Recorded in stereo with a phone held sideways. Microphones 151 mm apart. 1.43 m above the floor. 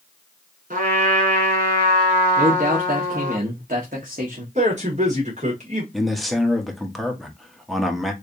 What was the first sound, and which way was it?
A trumpet, 60° right (ahead or behind).